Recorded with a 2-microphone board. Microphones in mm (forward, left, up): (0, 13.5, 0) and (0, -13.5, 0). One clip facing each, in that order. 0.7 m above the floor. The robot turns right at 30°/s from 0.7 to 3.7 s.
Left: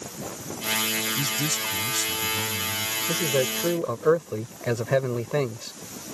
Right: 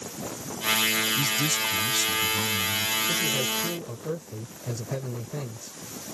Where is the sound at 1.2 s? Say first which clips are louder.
Right 2 dB; straight behind; by 3.0 s 125° right.